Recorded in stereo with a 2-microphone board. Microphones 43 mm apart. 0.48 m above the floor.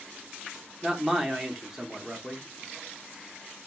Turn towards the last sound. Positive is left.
turn(degrees=-15)  # may be behind; listen again after turning